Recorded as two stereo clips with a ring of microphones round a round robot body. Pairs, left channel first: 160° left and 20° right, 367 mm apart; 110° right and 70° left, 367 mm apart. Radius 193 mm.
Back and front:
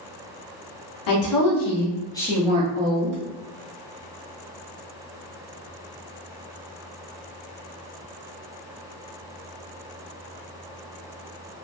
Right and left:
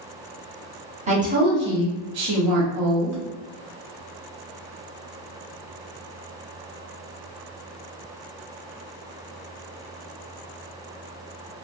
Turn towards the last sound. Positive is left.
turn(degrees=30)